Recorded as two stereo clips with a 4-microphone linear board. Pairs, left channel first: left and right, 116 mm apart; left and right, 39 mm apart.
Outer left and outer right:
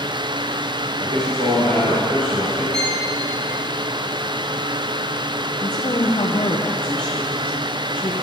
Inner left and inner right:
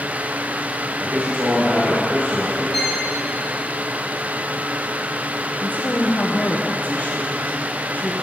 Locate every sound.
1.0 s a man speaking: 85° right, 4 m
2.7 s a violin: 5° left (ahead or behind), 1.3 m
5.6 s a woman speaking: 40° left (ahead or behind), 0.8 m